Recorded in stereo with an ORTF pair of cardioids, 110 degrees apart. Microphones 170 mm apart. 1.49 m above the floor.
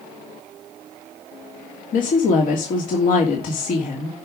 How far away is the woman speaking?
About 3 m.